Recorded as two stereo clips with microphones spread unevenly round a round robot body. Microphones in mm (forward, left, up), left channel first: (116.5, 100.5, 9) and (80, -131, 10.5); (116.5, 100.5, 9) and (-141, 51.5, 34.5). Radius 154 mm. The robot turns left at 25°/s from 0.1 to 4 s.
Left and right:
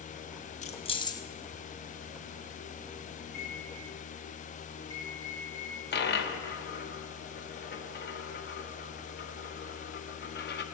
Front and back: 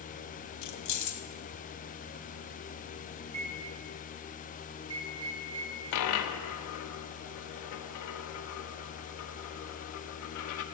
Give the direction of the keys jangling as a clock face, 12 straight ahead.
11 o'clock.